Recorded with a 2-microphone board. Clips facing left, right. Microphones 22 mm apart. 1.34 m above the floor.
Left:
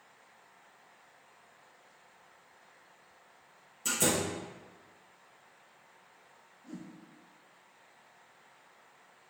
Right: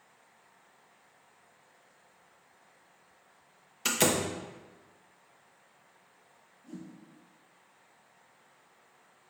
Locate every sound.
3.9 s a door slam: 85° right, 0.6 m
6.6 s a whoosh: 35° left (ahead or behind), 0.8 m